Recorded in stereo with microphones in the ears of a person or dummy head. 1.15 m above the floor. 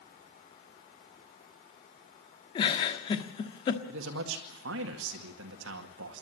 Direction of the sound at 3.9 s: 60° right (ahead or behind).